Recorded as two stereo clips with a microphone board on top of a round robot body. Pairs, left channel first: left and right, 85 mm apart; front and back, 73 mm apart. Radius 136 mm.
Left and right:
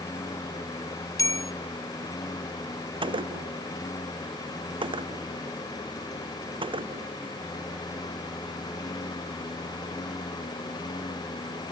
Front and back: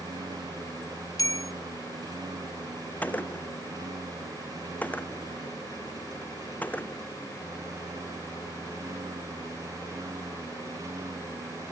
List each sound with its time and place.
0.0 s a lawn mower: 145° left; by 11.7 s 130° left
1.2 s a bell: 40° left
3.0 s a gunshot: 70° right